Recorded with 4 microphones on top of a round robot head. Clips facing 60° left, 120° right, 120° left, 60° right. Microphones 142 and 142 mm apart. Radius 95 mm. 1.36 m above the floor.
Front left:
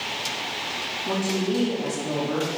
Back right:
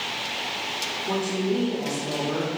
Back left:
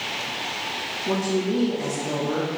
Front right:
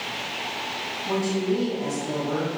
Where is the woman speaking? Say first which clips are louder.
Even, back left 1 dB; 115° left, 2 m.